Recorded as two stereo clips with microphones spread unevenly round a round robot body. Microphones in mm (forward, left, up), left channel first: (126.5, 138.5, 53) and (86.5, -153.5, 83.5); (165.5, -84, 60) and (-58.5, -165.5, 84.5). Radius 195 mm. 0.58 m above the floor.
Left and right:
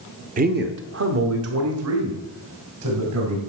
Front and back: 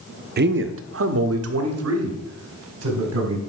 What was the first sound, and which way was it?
A man speaking, 150° right.